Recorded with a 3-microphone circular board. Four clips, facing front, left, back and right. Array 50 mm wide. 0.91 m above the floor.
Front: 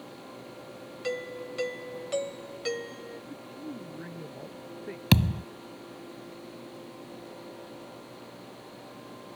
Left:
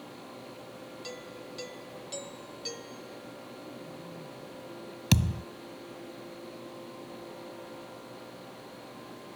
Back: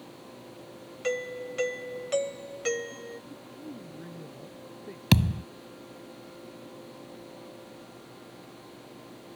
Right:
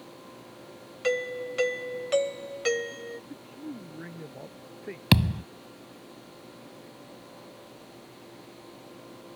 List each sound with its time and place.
1.0 s a doorbell: 105° right
3.3 s a man speaking: 65° right
5.1 s a thud: 85° right